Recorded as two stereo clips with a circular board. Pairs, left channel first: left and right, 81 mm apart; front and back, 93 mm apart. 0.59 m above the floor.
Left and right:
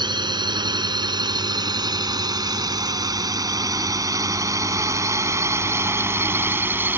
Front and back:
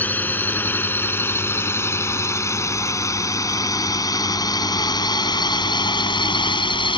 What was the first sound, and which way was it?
A drone, 70° right.